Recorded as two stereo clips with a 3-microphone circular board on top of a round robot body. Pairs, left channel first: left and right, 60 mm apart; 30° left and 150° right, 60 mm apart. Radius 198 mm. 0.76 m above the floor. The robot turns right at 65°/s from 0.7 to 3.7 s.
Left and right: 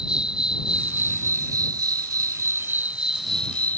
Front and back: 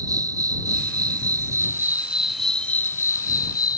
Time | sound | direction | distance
0.0 | an insect | 165° right | ?